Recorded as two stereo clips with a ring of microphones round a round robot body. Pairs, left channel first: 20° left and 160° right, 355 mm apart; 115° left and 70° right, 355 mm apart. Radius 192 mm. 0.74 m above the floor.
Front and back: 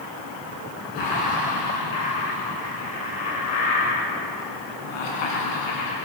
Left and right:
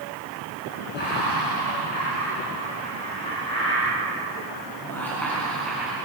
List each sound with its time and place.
0.9 s laughter: 50° left, 7.5 m; by 6.0 s 20° left, 6.5 m